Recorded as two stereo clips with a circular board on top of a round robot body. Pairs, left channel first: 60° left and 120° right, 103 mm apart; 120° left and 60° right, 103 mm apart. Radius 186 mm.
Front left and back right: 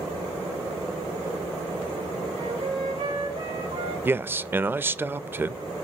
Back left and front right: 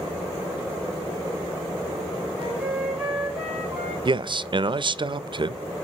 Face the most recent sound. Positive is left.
turn(degrees=-55)